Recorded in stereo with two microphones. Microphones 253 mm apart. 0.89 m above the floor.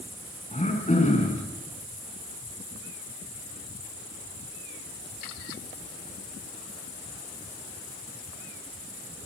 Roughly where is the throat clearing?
Left.